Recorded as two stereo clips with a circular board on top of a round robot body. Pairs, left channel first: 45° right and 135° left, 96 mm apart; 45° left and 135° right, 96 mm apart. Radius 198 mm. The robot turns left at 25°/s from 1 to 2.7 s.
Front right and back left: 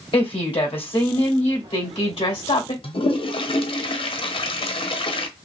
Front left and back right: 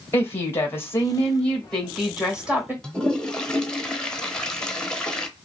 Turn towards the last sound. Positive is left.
turn(degrees=-35)